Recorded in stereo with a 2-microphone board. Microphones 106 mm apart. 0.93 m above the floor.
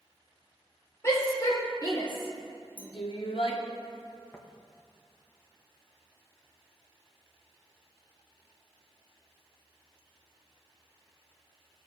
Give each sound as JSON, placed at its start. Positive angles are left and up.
{"t": 1.0, "sound": "a shout", "side_deg": 30, "distance_m": 3.5}
{"t": 2.8, "sound": "a clink", "side_deg": -15, "distance_m": 0.8}
{"t": 4.3, "sound": "tapping", "side_deg": 20, "distance_m": 1.2}